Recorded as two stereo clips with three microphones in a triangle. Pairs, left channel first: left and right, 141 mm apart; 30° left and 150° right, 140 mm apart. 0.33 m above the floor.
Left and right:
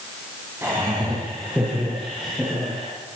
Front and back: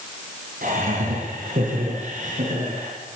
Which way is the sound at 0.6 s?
165° right.